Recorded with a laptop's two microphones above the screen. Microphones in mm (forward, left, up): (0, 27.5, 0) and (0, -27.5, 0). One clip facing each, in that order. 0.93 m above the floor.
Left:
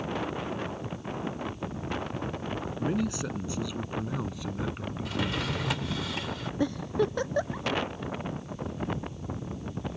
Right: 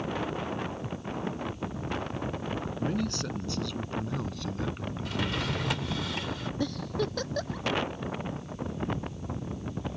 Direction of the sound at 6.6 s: 20° left (ahead or behind).